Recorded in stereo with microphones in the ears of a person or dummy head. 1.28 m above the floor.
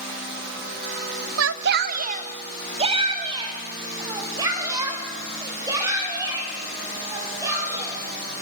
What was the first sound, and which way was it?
A shout, 70° right (ahead or behind).